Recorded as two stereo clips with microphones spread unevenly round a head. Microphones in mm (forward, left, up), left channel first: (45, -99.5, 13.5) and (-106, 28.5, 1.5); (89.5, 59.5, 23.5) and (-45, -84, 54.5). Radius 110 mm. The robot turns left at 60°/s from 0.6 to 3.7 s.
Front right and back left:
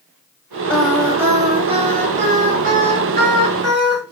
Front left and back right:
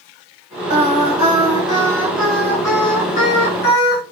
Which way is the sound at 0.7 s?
115° right.